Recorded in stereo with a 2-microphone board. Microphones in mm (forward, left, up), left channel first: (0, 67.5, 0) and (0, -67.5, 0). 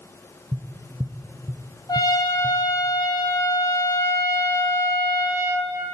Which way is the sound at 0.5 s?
30° right (ahead or behind).